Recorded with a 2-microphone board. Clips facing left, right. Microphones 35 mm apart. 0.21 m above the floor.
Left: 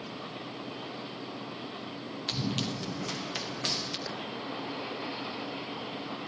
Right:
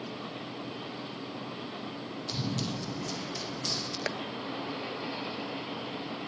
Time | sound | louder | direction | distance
2.3 | running footsteps | left 2 dB | 70° left (ahead or behind) | 4 m
4.1 | tapping | right 4 dB | 80° right | 0.9 m